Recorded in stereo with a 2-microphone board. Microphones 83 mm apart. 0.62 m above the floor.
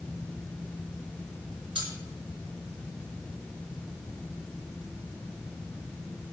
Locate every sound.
1.8 s cutlery clinking: 85° right, 5 m